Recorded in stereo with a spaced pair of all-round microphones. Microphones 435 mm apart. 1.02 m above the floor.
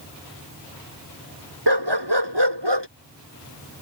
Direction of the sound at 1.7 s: 70° right (ahead or behind).